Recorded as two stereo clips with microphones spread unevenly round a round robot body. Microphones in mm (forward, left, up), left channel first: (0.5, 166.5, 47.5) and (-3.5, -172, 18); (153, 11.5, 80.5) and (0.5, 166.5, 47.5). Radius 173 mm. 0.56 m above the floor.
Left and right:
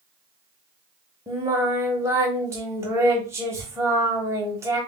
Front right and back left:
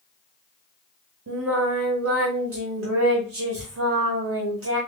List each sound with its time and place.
1.3 s singing: 175° right, 0.7 m